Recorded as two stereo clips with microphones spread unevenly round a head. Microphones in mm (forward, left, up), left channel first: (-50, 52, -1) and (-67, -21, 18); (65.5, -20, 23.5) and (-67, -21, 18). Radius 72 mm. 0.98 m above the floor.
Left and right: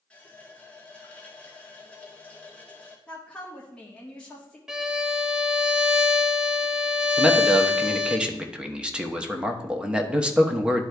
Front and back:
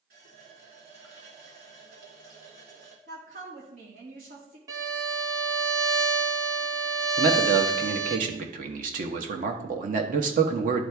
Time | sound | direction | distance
0.1 | a running tap | 150° left | 2 m
3.1 | a woman speaking | 150° left | 2 m
4.7 | a violin | 140° right | 0.6 m
7.2 | a man speaking | 175° left | 1.2 m